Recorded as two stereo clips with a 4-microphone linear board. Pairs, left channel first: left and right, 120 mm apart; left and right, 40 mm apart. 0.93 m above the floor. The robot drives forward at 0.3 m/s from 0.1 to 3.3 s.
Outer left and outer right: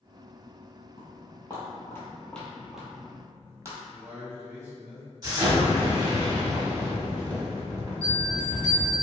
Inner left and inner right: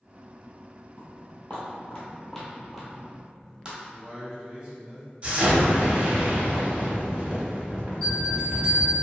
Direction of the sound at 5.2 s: 35° right (ahead or behind).